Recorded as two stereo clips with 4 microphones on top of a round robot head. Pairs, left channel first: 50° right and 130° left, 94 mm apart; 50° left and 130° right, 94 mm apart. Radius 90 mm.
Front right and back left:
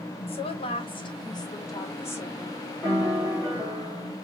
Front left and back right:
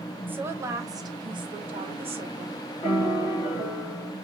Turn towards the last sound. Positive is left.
turn(degrees=10)